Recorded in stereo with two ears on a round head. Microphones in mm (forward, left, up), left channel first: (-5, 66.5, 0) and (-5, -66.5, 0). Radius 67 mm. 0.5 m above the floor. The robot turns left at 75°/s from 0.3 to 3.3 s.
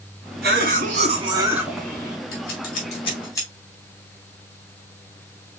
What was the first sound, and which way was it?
A cough, 85° right.